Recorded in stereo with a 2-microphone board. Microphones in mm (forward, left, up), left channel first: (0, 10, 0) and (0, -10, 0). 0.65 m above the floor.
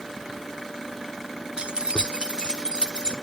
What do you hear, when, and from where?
1.6 s keys jangling: 55° right (ahead or behind), 0.7 m; by 3.1 s 45° right (ahead or behind), 1.5 m